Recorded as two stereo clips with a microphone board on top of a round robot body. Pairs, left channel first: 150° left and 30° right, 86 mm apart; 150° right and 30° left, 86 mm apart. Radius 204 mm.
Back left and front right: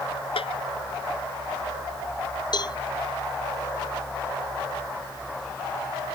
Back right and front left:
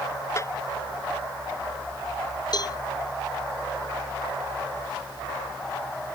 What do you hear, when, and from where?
0.4 s a snare drum: 150° left
2.5 s a cowbell: straight behind